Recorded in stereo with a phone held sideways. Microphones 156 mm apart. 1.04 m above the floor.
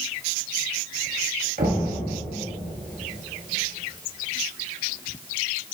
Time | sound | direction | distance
1.6 | knocking | 65° right (ahead or behind) | 1.2 m